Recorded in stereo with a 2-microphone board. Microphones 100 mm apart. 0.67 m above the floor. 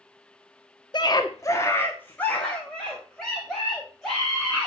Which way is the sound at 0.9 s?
50° left (ahead or behind).